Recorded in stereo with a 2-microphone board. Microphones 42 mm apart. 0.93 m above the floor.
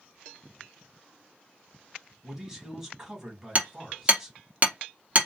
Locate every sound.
2.2 s a man speaking: 10° right (ahead or behind), 1.5 m
3.5 s hammering: 35° right (ahead or behind), 0.7 m